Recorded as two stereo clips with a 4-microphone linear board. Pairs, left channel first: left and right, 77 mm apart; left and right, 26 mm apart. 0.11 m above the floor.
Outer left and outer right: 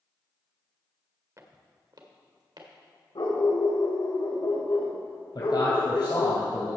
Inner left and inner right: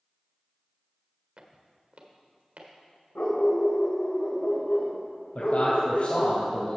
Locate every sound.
1.4 s footsteps: 40° right (ahead or behind), 1.4 m; by 2.7 s 70° right (ahead or behind), 2.5 m
3.1 s a dog barking: 75° left (ahead or behind), 2.5 m
5.3 s a man speaking: 60° left (ahead or behind), 2.5 m